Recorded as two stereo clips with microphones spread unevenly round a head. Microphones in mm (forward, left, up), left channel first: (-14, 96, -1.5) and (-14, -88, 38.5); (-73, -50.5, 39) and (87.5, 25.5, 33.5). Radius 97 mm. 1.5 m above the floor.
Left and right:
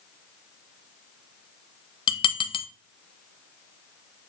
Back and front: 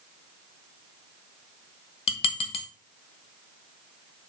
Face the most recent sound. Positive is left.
turn(degrees=155)